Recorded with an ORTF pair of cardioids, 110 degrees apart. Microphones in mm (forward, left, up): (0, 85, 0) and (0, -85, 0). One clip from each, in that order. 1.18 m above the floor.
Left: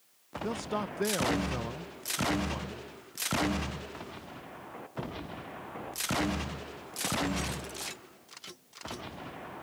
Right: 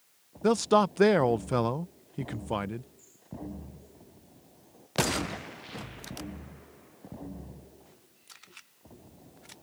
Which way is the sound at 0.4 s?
50° right.